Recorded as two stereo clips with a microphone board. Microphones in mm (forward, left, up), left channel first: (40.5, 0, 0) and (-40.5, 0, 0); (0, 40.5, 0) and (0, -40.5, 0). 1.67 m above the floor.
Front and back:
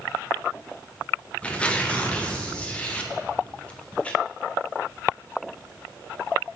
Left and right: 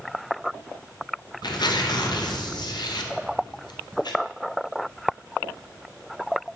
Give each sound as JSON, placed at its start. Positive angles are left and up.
{"t": 1.4, "sound": "tearing paper", "azimuth_deg": 75, "distance_m": 0.6}